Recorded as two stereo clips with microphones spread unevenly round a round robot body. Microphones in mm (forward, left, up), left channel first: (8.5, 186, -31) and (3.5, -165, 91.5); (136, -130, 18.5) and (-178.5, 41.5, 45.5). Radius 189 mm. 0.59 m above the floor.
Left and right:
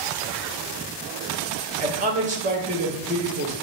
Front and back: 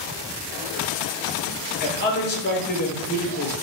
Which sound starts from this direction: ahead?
A man speaking, at 1.8 s.